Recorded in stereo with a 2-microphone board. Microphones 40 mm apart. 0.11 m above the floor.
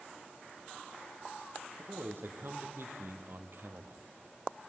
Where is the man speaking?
65° right (ahead or behind), 4 m; by 4.0 s 60° right (ahead or behind), 2.5 m.